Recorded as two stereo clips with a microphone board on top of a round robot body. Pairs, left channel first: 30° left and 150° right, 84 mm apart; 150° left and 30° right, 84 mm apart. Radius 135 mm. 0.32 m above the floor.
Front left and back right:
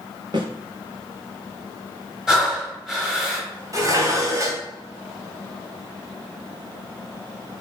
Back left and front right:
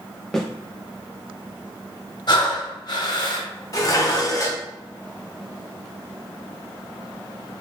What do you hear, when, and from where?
0.3 s a snare drum: 125° right, 0.9 m
2.3 s breathing: 125° left, 1.1 m
3.7 s dishes clattering: straight behind, 1.0 m